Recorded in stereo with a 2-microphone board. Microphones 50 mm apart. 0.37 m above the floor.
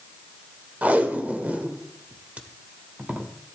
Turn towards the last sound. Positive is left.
turn(degrees=-30)  # may be behind; listen again after turning